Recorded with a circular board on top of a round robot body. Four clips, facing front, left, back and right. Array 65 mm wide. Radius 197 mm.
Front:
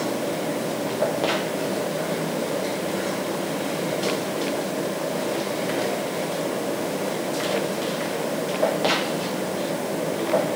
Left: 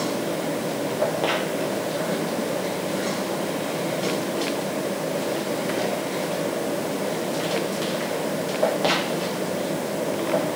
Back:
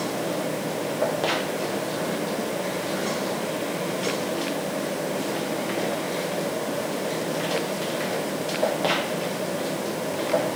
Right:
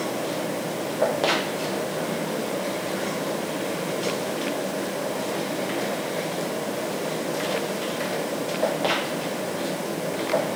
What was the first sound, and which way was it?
Only background noise.